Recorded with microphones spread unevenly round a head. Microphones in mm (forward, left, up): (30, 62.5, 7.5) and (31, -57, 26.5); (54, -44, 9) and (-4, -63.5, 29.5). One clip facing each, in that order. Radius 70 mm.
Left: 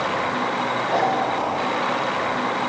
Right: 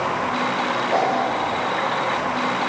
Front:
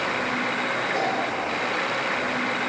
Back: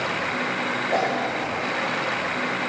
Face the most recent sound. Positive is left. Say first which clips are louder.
# right 1 dB, back 4 dB
turn(degrees=-175)